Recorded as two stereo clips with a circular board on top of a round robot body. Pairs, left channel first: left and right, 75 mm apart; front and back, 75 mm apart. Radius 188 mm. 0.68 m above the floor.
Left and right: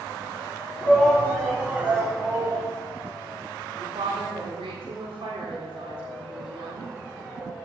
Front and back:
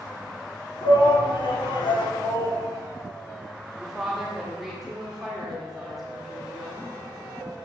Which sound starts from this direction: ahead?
A shout, at 0.8 s.